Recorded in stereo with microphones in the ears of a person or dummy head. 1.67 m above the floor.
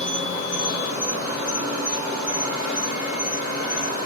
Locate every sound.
0.0 s an insect: 15° right (ahead or behind), 1.3 m